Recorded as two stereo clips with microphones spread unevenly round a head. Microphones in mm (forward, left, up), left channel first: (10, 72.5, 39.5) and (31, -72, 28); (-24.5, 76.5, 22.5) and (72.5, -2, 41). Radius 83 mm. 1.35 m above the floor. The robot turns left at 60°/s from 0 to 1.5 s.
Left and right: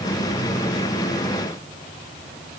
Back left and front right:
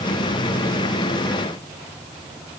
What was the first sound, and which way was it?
Only background noise.